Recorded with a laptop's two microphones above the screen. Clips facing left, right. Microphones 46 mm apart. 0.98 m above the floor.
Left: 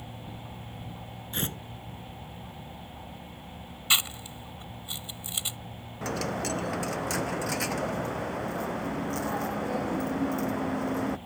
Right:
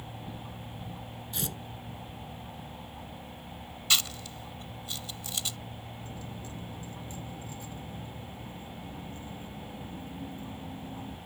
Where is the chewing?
20° left (ahead or behind).